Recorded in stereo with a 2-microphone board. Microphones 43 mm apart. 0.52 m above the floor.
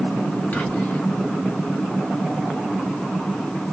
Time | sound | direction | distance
0.5 | whispering | 40° left (ahead or behind) | 1.0 m